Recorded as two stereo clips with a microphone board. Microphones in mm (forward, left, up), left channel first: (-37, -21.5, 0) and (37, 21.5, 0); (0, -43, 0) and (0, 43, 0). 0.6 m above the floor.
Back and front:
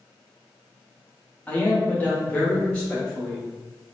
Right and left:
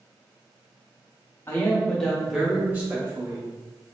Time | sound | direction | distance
1.5 | a man speaking | 95° right | 0.9 m